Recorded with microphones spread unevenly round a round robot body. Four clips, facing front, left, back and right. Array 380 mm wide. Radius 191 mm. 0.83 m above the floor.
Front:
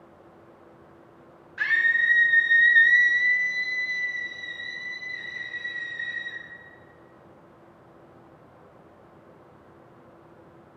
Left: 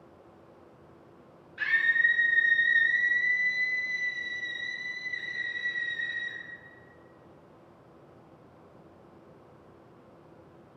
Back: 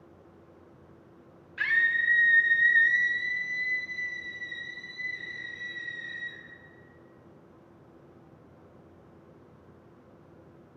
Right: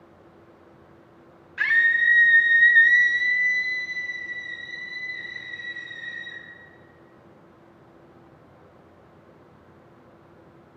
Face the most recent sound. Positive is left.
turn(degrees=65)